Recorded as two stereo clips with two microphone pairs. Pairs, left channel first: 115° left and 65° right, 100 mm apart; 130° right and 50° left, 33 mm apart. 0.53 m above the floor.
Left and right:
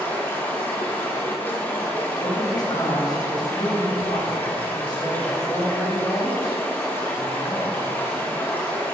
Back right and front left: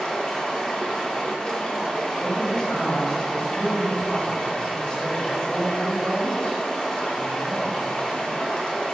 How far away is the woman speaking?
About 2.5 m.